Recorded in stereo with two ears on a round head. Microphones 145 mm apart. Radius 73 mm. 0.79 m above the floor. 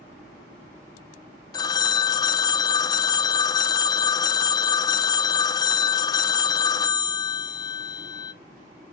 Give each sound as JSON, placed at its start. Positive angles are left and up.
{"t": 1.5, "sound": "a phone ringing", "side_deg": 25, "distance_m": 0.6}